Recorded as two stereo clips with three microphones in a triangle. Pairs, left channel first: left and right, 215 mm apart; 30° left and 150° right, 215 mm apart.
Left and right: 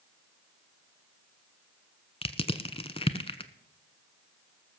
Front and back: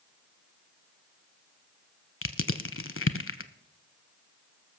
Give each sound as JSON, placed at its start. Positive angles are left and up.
{"t": 2.2, "sound": "crushing", "azimuth_deg": 30, "distance_m": 0.7}